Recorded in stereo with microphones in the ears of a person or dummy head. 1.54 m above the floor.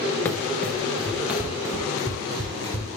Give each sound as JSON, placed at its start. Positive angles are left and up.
{"t": 0.2, "sound": "running footsteps", "side_deg": 15, "distance_m": 1.7}